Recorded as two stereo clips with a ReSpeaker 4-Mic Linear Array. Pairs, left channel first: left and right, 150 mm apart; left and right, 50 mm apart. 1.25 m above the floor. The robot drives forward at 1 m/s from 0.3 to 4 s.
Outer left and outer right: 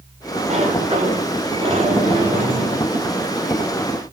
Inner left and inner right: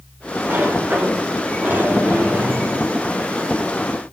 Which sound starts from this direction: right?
A sliding door, at 0.5 s.